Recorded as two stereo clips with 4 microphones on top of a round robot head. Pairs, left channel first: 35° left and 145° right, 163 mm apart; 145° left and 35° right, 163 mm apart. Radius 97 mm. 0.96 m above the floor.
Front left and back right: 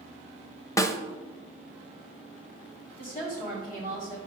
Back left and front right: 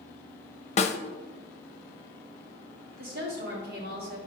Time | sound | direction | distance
0.8 | a snare drum | 105° left | 0.9 m
3.0 | a woman speaking | 5° right | 4.5 m